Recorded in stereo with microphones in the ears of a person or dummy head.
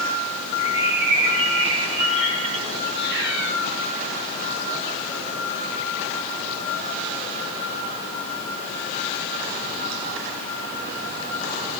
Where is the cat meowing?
55° right (ahead or behind), 5.5 m.